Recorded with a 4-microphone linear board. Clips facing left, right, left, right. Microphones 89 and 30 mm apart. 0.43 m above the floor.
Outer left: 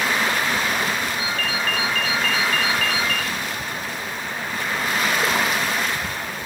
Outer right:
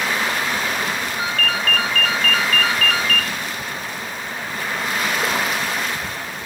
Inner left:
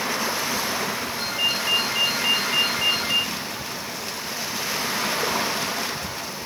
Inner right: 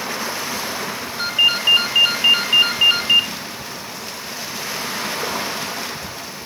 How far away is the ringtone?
About 1.8 m.